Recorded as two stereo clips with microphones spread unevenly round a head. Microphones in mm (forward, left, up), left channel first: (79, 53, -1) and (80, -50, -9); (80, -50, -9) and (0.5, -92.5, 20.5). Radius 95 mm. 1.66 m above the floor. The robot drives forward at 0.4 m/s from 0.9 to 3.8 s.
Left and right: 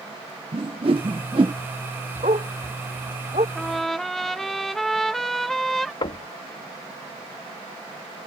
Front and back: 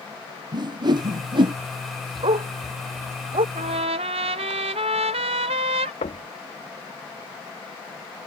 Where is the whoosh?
140° right; by 1.6 s 150° right.